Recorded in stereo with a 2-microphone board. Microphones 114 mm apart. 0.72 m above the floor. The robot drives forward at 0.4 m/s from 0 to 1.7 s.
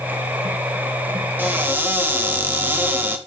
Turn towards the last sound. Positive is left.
turn(degrees=-20)  # may be behind; listen again after turning